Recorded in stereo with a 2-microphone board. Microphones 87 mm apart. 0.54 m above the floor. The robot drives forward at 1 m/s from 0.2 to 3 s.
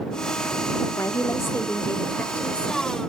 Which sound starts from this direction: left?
A woman speaking, at 1.0 s.